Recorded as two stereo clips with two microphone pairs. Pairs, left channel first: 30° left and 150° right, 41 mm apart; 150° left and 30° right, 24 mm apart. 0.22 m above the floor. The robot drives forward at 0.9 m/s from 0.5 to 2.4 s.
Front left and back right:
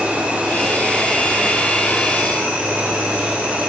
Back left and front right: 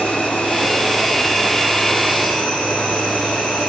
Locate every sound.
0.0 s an insect: 150° left, 4.5 m; by 3.7 s 160° left, 6 m